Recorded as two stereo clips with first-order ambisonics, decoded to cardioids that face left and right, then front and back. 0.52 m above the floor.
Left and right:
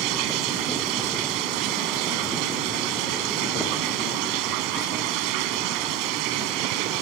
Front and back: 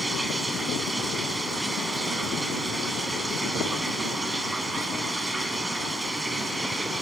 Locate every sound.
0.0 s running water: 95° right, 1.4 m